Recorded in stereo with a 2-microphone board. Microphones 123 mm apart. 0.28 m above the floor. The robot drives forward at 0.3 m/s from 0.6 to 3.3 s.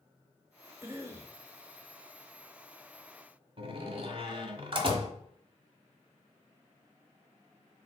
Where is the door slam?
40° right (ahead or behind), 1.4 m.